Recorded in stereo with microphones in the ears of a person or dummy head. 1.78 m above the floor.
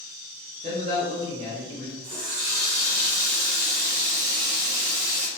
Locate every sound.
0.6 s a man speaking: 20° right (ahead or behind), 0.6 m; by 1.9 s 15° left (ahead or behind), 0.9 m
2.0 s a running tap: 50° right (ahead or behind), 1.5 m